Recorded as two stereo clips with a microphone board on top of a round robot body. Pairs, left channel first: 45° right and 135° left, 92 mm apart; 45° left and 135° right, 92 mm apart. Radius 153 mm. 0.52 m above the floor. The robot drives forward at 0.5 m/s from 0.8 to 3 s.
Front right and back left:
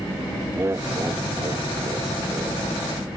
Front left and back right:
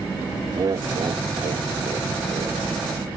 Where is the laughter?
170° right; by 2.7 s 175° right.